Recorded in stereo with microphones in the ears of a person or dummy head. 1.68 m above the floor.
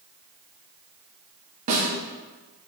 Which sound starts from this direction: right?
A snare drum, at 1.7 s.